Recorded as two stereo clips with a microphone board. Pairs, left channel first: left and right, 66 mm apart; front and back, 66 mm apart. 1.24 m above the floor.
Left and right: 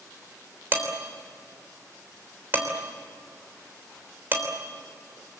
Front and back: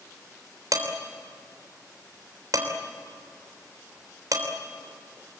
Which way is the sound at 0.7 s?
150° right.